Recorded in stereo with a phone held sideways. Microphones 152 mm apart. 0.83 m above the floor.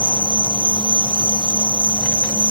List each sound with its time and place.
0.0 s an insect: 30° left (ahead or behind), 2.5 m